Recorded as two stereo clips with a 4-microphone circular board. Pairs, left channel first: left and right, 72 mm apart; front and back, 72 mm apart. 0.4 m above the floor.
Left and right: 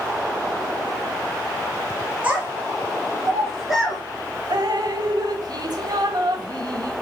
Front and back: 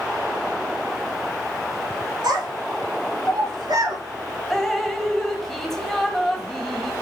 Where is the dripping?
85° right, 1.1 m.